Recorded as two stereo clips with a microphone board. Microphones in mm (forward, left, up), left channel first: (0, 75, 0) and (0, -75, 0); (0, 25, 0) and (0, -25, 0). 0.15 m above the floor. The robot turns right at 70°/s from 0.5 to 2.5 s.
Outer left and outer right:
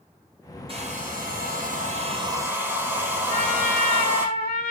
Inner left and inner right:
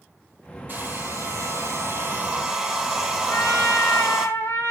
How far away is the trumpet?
About 6.5 m.